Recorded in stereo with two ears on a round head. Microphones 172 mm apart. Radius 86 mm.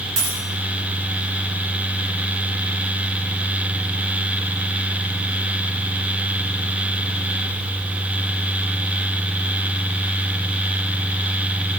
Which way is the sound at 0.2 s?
75° right (ahead or behind).